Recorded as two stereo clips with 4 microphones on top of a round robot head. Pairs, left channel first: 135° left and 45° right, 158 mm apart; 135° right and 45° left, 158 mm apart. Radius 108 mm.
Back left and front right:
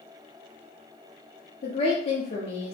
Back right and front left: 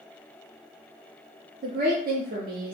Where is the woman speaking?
80° left, 0.6 m.